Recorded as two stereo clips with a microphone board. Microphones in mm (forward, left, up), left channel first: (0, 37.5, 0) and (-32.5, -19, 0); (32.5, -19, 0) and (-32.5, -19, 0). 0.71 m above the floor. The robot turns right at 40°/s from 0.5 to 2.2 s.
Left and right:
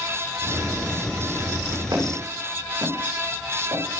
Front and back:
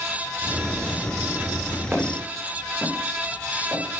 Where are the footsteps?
115° right, 8 m; by 3.8 s 110° right, 9 m.